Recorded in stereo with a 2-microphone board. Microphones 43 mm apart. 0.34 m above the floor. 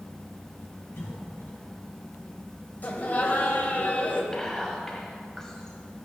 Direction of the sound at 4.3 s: 10° left (ahead or behind).